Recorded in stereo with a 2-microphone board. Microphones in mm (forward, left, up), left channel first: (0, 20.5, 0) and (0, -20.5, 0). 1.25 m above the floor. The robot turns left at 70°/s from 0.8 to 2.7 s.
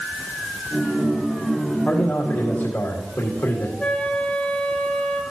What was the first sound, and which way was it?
A man speaking, 125° left.